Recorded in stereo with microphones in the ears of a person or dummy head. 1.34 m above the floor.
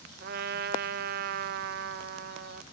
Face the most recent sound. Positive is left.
turn(degrees=-50)  # may be behind; listen again after turning